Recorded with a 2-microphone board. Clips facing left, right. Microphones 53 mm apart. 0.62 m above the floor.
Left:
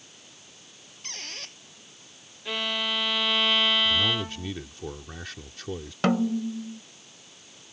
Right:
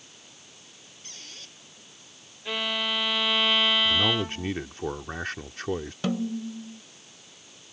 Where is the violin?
5° right (ahead or behind).